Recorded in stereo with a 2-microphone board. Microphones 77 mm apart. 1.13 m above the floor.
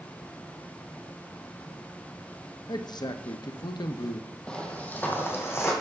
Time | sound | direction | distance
2.7 | a man speaking | 65° left (ahead or behind) | 0.6 m
4.5 | footsteps | 10° left (ahead or behind) | 1.7 m